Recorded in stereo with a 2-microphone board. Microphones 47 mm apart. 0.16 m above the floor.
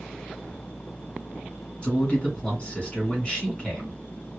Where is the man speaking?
25° left (ahead or behind), 2 m.